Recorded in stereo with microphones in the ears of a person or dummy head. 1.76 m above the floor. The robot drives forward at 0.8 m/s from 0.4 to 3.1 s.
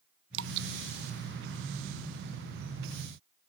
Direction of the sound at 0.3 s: 75° right (ahead or behind).